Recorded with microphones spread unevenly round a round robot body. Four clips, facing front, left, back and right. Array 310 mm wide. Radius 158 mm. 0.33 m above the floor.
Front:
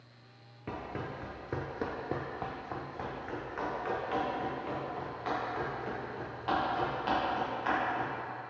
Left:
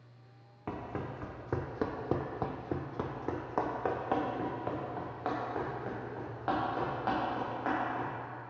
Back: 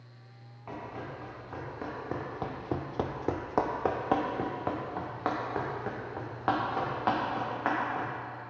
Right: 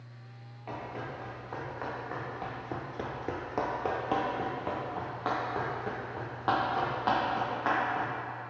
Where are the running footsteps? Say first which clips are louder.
Even, front 1 dB; 55° left, 1.3 m; by 8.1 s 150° right, 4 m.